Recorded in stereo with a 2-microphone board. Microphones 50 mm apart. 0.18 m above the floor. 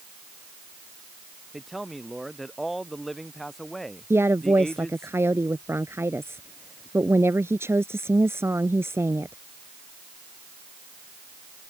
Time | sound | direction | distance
1.5 | a man speaking | centre (ahead or behind) | ?
4.1 | a woman speaking | 65° right (ahead or behind) | ?